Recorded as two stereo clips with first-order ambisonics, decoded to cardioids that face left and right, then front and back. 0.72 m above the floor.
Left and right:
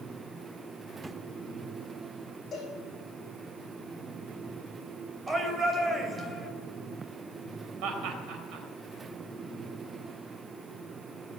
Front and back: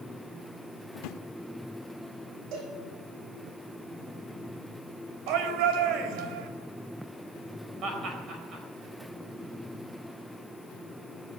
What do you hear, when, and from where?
0.9 s a drawer: 15° right, 0.5 m
2.5 s a cowbell: 160° left, 9 m
5.3 s a shout: 165° right, 3 m
7.8 s laughter: 125° right, 4 m